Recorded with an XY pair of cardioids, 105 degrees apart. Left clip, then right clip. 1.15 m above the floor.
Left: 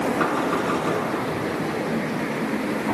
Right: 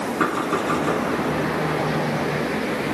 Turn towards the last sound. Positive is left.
turn(degrees=-10)